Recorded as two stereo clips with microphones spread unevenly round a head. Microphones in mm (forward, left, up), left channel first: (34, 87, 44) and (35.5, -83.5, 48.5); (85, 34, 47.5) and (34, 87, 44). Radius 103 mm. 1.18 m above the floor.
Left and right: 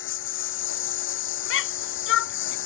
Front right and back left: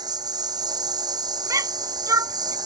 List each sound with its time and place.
0.0 s a lawn mower: 105° left
1.5 s a shout: 90° left